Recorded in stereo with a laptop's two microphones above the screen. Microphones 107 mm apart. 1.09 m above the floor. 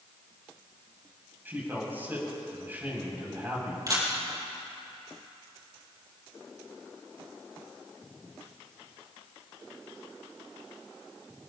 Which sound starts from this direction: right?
A camera shutter, at 3.9 s.